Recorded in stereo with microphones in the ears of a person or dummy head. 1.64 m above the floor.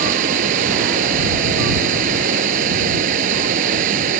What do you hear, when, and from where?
0.0 s running water: 45° right (ahead or behind)